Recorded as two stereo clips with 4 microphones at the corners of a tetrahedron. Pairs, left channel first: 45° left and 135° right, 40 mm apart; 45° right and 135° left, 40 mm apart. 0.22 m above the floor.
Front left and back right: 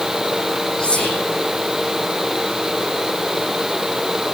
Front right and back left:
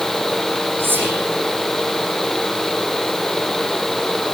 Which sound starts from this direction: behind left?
Whispering, at 0.8 s.